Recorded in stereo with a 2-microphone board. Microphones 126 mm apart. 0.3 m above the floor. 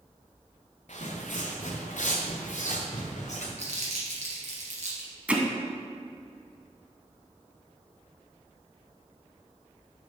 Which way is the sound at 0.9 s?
60° left (ahead or behind).